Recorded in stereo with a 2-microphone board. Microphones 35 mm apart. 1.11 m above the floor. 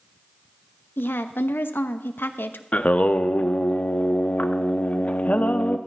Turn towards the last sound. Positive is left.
turn(degrees=45)  # may be behind; listen again after turning